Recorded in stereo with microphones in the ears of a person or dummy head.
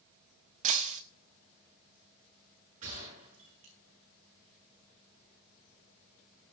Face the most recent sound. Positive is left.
turn(degrees=-45)  # may be behind; listen again after turning